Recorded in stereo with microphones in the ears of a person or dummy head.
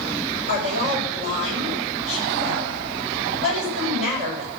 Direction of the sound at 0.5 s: 55° right (ahead or behind).